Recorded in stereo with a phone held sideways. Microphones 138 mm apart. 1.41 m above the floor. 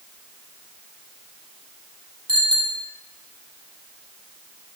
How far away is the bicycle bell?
About 8.5 m.